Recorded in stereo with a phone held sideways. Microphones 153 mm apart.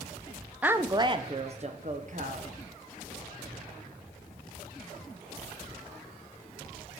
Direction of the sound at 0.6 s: 10° right (ahead or behind).